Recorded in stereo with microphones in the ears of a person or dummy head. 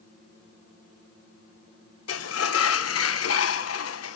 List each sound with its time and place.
2.1 s a sliding door: 85° left, 1.1 m